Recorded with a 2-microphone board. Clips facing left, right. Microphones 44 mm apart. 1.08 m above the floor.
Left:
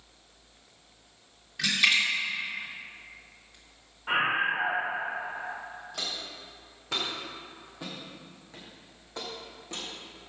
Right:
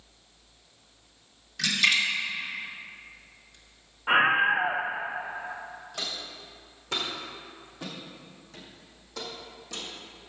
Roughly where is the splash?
Left.